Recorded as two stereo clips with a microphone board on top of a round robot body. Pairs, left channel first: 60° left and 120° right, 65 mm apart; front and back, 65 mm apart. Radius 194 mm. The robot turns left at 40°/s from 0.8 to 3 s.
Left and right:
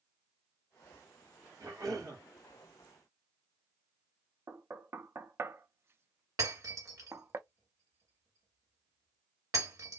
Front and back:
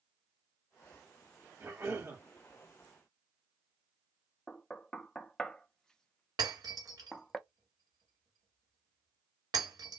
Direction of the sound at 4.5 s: 80° right.